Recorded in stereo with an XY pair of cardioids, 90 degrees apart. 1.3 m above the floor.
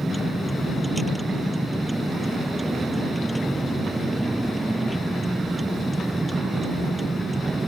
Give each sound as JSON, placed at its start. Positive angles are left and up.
{"t": 0.0, "sound": "a vehicle", "azimuth_deg": -5}